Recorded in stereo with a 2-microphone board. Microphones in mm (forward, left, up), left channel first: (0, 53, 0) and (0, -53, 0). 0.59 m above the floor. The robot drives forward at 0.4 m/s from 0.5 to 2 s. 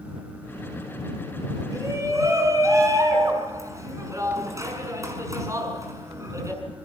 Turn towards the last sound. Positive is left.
turn(degrees=-30)  # may be behind; listen again after turning